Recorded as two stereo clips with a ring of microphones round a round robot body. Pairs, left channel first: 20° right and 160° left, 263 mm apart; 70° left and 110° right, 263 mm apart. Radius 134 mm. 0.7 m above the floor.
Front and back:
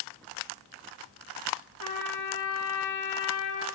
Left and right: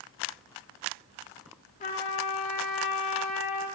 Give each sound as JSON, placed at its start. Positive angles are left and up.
{"t": 1.8, "sound": "a trumpet", "azimuth_deg": 5, "distance_m": 1.0}